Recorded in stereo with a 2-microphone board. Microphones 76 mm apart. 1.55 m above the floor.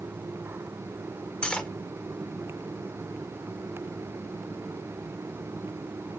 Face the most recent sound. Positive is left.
turn(degrees=15)  # may be behind; listen again after turning